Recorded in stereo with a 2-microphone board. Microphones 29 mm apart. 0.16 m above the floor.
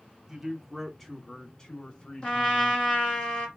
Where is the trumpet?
35° left (ahead or behind), 1.7 m.